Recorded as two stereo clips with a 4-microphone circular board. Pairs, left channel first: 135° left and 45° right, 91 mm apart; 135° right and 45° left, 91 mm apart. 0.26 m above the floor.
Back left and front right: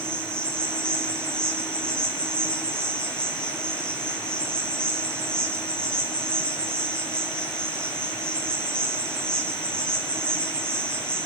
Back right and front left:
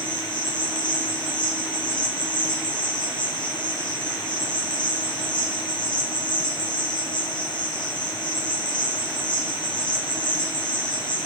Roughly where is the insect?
Behind right.